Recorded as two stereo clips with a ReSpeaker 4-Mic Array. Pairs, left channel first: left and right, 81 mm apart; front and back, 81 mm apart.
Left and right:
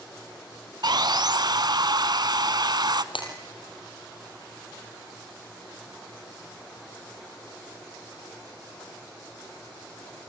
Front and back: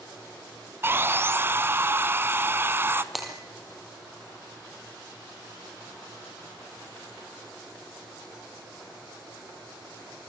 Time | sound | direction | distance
0.8 | sawing | 120° right | 1.2 m
3.1 | breaking glass | 90° left | 5 m